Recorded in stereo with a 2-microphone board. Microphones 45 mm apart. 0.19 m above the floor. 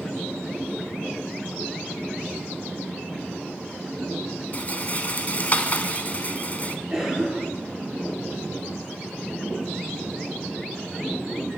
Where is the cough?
15° right (ahead or behind), 3 m.